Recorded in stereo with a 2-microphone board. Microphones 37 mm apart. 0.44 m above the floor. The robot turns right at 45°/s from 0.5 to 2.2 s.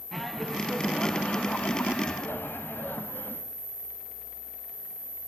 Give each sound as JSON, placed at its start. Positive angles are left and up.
{"t": 0.1, "sound": "laughter", "azimuth_deg": 5, "distance_m": 3.0}